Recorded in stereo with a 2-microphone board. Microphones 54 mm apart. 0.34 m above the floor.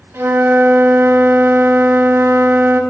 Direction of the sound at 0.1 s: 60° right (ahead or behind).